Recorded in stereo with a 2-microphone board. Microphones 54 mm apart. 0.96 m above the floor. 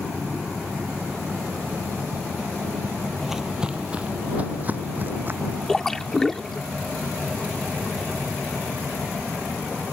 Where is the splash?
10° left (ahead or behind).